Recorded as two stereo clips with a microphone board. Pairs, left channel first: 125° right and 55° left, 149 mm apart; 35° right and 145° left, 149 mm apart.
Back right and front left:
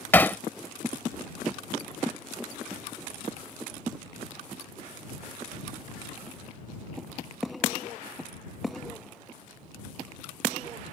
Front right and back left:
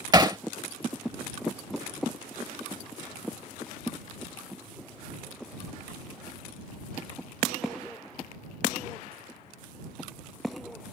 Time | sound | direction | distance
0.1 | hammering | 175° left | ?